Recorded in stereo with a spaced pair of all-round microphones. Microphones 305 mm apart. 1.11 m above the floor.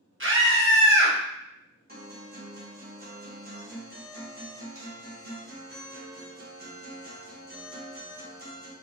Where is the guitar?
30° right (ahead or behind), 0.8 m.